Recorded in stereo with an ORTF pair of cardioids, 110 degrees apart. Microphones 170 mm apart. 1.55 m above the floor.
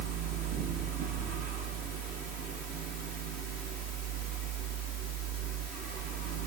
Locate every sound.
0.0 s a fan: 55° right, 0.9 m